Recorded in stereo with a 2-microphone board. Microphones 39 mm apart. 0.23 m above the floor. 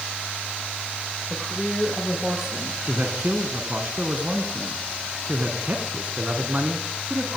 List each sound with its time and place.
1.3 s a woman speaking: 10° right (ahead or behind), 6 m
2.9 s a man speaking: 35° right (ahead or behind), 3 m